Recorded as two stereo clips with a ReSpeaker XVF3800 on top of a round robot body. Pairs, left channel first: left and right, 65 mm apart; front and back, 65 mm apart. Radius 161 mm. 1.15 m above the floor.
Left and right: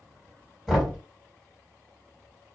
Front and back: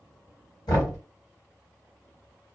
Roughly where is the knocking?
Ahead.